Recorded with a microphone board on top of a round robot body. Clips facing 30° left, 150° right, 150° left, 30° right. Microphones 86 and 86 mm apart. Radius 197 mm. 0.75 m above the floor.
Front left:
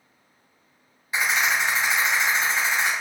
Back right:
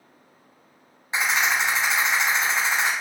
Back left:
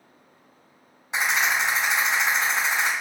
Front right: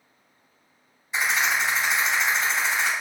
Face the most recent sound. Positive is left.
turn(degrees=150)